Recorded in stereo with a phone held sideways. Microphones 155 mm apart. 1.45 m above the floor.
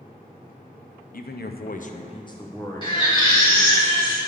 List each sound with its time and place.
1.1 s a man speaking: 65° left (ahead or behind), 0.6 m; by 3.8 s 5° left (ahead or behind), 1.8 m
2.8 s a baby crying: 30° left (ahead or behind), 1.9 m